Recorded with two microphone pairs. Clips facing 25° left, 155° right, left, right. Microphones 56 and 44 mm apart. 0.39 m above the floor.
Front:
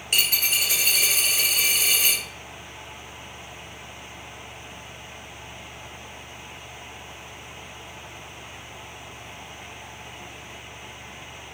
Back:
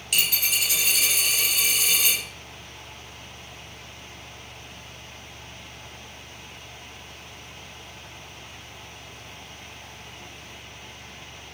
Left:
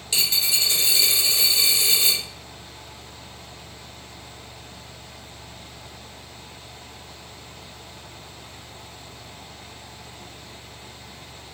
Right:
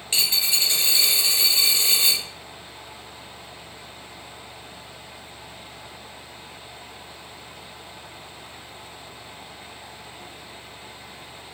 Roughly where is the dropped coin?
Ahead right.